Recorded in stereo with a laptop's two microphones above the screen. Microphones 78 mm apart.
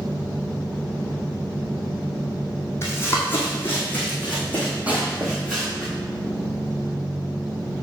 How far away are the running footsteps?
About 2 m.